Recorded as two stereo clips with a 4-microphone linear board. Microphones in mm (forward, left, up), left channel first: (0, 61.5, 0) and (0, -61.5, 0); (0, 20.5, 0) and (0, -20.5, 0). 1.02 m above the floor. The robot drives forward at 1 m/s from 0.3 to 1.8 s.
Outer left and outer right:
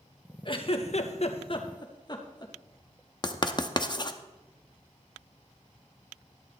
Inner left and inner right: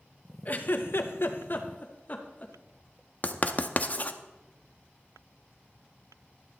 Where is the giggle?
40° left (ahead or behind), 0.9 m; by 2.5 s 35° left (ahead or behind), 1.0 m.